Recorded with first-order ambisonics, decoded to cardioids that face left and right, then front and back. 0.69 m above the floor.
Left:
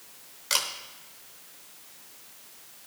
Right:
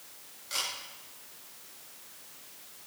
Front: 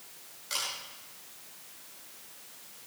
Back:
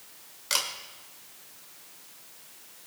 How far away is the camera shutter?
About 2 m.